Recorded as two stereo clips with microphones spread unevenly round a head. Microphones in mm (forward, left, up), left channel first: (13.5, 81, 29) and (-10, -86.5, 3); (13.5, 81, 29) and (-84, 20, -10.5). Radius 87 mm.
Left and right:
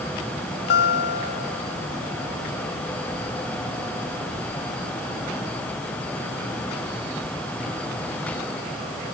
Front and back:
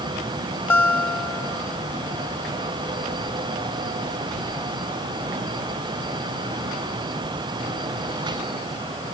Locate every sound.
0.7 s a guitar: 95° left